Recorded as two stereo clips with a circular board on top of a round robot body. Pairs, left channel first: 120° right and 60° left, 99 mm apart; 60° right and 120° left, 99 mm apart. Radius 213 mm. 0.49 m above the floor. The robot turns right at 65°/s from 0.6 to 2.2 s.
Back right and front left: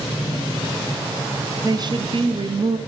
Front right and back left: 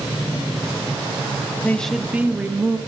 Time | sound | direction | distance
1.6 | a woman speaking | 10° left | 1.2 m